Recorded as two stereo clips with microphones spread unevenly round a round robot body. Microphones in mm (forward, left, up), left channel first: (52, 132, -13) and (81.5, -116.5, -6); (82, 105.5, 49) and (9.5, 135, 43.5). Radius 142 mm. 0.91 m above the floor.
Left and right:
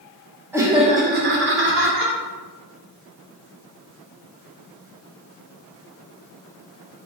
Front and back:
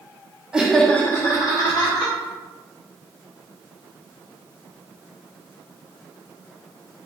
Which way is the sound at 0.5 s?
160° right.